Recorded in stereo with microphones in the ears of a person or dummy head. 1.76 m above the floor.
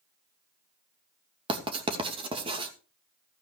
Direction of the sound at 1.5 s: 25° right (ahead or behind).